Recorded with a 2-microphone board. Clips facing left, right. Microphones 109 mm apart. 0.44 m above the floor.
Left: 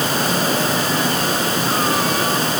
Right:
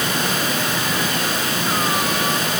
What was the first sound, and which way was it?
Only background noise.